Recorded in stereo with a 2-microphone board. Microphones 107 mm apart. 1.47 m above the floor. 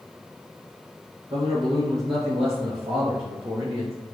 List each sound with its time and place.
1.3 s a man speaking: 70° right (ahead or behind), 1.7 m; by 4.0 s 60° right (ahead or behind), 3 m